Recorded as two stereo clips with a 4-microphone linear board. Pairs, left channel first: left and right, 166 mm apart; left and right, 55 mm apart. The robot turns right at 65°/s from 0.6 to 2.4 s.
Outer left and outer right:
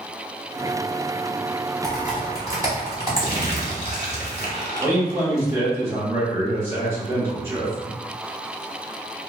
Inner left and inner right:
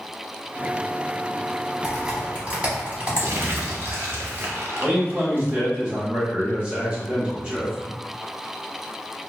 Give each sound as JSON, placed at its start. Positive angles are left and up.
{"t": 1.8, "sound": "typing on a keyboard", "side_deg": 0, "distance_m": 1.1}
{"t": 3.1, "sound": "crumpling", "side_deg": -45, "distance_m": 0.9}
{"t": 4.8, "sound": "a man speaking", "side_deg": -15, "distance_m": 1.7}